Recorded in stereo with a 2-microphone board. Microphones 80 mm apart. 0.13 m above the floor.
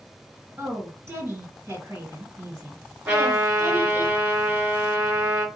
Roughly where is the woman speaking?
Right.